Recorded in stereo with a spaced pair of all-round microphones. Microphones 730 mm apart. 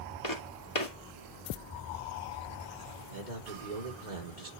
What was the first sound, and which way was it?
Footsteps, 40° left (ahead or behind).